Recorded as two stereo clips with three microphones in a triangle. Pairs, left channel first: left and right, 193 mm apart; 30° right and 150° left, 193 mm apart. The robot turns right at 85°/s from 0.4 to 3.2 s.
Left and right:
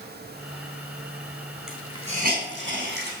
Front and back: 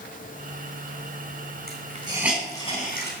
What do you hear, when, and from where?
1.7 s a hiss: straight behind, 3.5 m; by 3.1 s 55° right, 3.5 m